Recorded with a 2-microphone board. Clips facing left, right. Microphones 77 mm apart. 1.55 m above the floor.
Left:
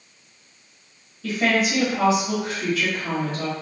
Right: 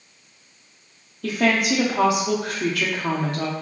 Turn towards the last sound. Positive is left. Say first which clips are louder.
# right 1 dB
turn(degrees=-65)  # may be behind; listen again after turning